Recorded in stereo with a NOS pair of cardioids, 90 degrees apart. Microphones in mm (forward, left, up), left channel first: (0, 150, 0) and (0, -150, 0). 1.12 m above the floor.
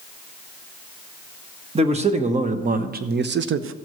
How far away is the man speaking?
About 1.4 m.